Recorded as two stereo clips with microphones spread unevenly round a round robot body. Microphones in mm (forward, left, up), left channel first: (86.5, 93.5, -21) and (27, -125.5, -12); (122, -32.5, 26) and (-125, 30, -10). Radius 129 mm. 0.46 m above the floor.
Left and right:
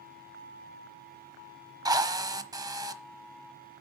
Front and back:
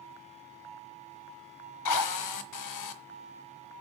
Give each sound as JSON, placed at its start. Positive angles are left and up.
{"t": 1.9, "sound": "a drill", "azimuth_deg": -30, "distance_m": 1.3}